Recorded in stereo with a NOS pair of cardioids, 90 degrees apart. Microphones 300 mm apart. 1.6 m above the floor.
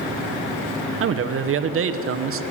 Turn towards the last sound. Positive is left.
turn(degrees=-50)